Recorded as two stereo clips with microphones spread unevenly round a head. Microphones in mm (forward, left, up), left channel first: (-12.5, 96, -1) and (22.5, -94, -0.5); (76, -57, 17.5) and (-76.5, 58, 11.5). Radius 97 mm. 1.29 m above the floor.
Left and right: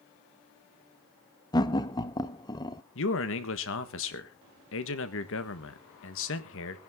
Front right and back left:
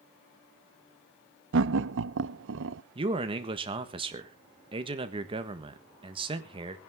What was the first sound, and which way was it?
Laughter, 170° left.